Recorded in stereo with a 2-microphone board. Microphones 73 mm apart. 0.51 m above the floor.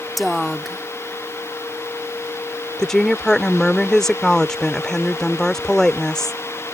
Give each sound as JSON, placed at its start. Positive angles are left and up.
{"t": 0.2, "sound": "a woman speaking", "side_deg": 0}
{"t": 2.8, "sound": "a woman speaking", "side_deg": 10}